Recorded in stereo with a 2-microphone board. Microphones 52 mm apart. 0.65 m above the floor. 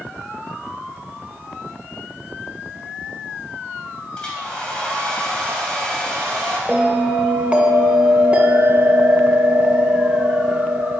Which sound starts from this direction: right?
A bell, at 6.7 s.